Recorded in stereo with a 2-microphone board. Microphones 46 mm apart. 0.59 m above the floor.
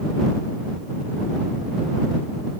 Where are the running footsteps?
No running footsteps in this recording.